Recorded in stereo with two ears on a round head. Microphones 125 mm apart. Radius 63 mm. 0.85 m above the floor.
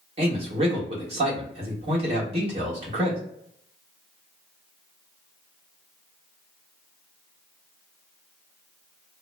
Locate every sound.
0.2 s a man speaking: 45° right (ahead or behind), 1.4 m